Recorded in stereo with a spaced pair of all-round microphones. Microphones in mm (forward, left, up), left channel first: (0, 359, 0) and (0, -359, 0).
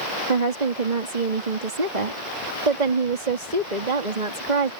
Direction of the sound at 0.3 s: 75° right (ahead or behind).